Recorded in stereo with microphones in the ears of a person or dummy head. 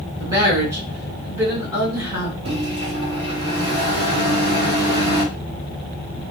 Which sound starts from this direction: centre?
A woman speaking, at 0.2 s.